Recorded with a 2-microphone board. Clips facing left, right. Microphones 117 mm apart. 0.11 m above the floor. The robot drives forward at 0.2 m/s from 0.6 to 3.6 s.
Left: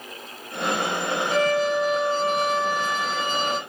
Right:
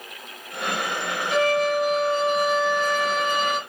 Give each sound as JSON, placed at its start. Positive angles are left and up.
{"t": 1.3, "sound": "a violin", "side_deg": 35, "distance_m": 1.8}